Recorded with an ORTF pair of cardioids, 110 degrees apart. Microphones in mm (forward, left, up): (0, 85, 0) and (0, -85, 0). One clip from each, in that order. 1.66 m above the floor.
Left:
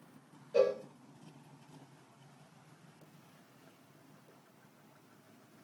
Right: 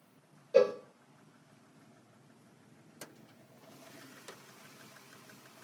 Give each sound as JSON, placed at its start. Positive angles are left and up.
{"t": 0.5, "sound": "a cowbell", "azimuth_deg": -30, "distance_m": 0.6}